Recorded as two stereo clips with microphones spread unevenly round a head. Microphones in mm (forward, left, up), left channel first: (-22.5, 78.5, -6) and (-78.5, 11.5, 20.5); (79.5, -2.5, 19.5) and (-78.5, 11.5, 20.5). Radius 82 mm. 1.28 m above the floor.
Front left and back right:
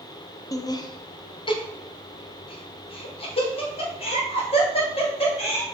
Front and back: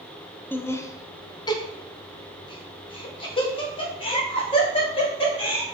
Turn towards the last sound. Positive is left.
turn(degrees=55)